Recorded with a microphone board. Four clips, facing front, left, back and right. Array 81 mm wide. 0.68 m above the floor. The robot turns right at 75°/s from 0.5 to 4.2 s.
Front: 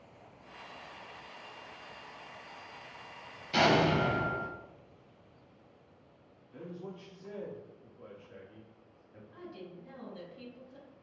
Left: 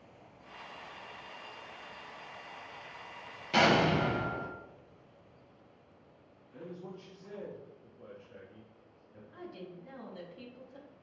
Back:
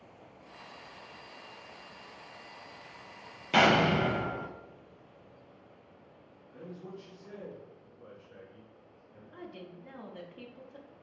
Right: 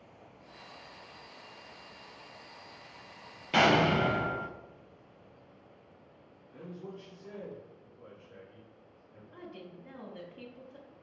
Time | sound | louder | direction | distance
3.5 | an explosion | right 1 dB, back 2 dB | 165° right | 0.5 m
6.5 | a man speaking | right 1 dB, front 1 dB | 5° right | 1.6 m
9.3 | a woman speaking | left 1 dB, back 1 dB | 155° right | 0.9 m